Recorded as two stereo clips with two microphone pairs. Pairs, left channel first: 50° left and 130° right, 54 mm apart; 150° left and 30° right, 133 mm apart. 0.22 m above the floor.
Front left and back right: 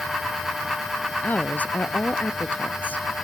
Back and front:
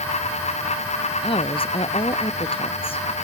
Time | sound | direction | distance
1.2 | a woman speaking | 110° left | ?